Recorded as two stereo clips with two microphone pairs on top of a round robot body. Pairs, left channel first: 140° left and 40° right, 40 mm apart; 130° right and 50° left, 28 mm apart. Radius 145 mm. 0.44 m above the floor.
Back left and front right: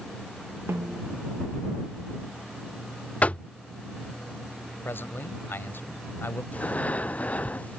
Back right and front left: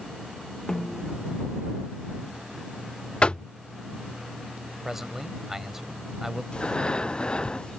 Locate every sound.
0.7 s a snare drum: 65° right
3.2 s knocking: 175° right
4.8 s a man speaking: 125° left
6.5 s breathing: straight behind